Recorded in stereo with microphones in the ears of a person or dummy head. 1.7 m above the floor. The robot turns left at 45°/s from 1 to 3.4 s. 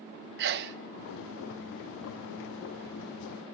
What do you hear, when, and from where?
0.4 s a sneeze: 55° right (ahead or behind), 0.7 m